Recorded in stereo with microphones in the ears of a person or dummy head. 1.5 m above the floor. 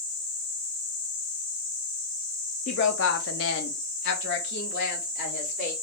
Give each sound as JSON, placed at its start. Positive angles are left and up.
{"t": 2.7, "sound": "a woman speaking", "side_deg": 45, "distance_m": 0.6}